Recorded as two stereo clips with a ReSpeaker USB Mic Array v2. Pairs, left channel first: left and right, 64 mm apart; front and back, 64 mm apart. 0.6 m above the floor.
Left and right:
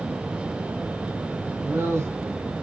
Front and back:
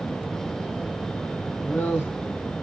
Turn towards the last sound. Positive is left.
turn(degrees=-55)